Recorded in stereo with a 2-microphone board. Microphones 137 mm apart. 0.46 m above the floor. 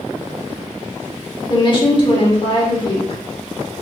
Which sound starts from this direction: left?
A woman speaking, at 1.5 s.